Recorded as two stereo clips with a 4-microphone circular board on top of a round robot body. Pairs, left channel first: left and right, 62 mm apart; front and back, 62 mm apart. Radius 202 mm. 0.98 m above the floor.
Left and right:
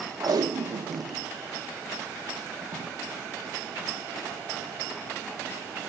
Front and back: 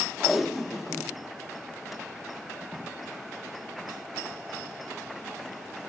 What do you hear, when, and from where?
0.2 s tape being pulled: 90° right, 0.7 m